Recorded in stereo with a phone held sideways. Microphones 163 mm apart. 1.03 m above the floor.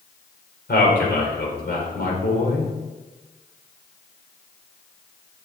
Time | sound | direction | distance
0.7 | a man speaking | 85° left | 3.5 m